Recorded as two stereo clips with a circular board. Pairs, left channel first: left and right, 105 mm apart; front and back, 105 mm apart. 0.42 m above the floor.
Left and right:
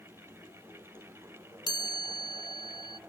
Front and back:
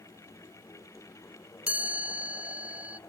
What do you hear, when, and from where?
1.7 s a chime: 110° left, 0.6 m